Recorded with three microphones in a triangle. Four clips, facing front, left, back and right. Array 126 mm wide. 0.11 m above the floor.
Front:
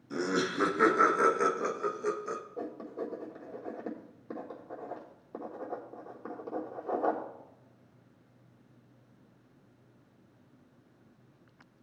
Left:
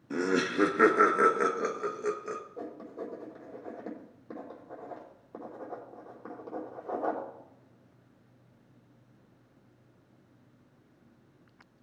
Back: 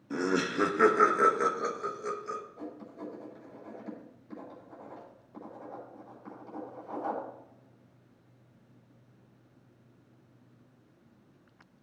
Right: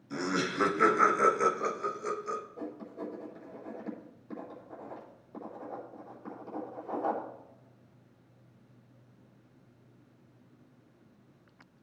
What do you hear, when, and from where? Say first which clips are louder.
0.1 s laughter: left 4 dB, back 1 dB; 120° left, 2 m; by 2.4 s 50° left, 2 m
2.6 s writing: even, front 4 dB; 30° left, 4.5 m